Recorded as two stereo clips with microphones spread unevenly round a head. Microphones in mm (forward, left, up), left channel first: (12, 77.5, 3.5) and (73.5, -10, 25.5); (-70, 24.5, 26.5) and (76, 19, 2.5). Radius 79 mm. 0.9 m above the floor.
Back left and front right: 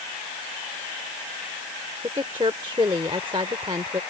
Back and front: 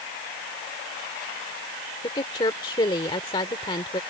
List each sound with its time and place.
2.0 s a woman speaking: 120° right